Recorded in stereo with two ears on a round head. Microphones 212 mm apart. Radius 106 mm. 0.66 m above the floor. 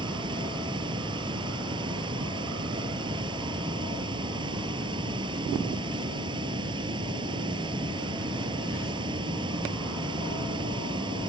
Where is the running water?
20° right (ahead or behind).